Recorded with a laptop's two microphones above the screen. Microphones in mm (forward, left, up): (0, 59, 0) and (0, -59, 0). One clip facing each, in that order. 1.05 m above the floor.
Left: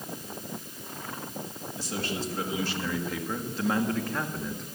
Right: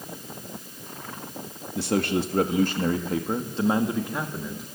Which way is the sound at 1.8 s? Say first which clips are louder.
Right 10 dB; 70° right (ahead or behind).